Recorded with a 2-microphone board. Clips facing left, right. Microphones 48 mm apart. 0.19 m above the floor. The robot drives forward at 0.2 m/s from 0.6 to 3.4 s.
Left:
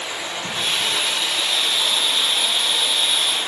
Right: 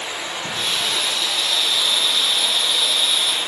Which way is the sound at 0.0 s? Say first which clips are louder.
Even; centre (ahead or behind).